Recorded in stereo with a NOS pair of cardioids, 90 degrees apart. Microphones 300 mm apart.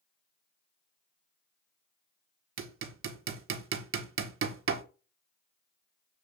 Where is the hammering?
45° right, 1.5 m.